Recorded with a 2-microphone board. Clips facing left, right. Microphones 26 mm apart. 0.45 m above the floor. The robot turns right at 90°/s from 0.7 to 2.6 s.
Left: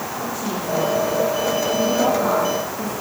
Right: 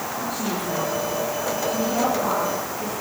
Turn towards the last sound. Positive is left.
turn(degrees=85)